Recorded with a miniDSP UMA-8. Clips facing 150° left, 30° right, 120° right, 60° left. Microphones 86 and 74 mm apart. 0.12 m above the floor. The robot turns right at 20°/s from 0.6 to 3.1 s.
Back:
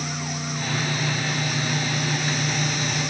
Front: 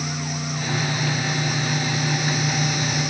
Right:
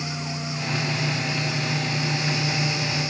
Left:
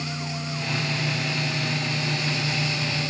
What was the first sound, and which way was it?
Only background noise.